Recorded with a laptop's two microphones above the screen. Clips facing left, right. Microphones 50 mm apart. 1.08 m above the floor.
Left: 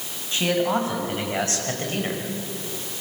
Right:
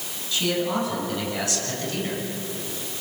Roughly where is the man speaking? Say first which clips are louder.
Left 3 dB; left.